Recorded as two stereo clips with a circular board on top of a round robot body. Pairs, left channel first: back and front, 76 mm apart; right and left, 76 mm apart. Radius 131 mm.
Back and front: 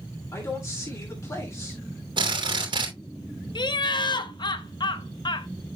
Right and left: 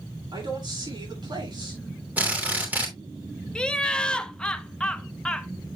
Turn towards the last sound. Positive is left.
turn(degrees=-170)